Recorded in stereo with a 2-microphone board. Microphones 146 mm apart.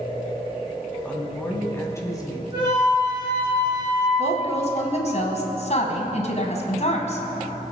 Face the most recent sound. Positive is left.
turn(degrees=50)  # may be behind; listen again after turning